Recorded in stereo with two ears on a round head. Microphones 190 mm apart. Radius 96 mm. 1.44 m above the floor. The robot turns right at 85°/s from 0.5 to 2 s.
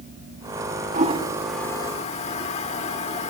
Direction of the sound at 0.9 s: 35° right (ahead or behind).